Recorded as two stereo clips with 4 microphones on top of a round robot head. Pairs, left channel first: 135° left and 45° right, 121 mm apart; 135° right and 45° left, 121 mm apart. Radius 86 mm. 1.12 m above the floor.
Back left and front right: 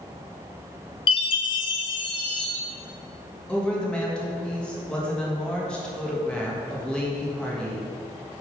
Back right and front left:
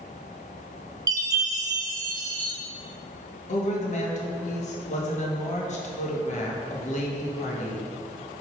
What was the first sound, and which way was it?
A chime, 100° left.